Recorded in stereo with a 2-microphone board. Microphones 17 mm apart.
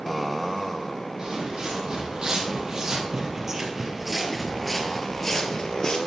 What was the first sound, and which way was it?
Footsteps, 50° right (ahead or behind).